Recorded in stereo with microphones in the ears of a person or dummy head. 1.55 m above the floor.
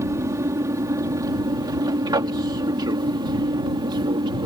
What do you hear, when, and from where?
0.0 s an aircraft: 15° right (ahead or behind); by 4.5 s 25° right (ahead or behind)